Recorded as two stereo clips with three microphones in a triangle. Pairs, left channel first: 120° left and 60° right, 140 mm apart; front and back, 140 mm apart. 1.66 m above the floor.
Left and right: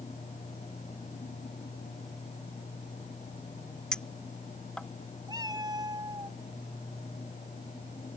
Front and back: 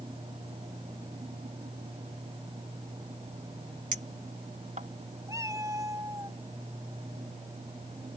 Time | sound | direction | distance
3.9 | a clink | 155° right | ?
5.3 | a cat meowing | 115° right | ?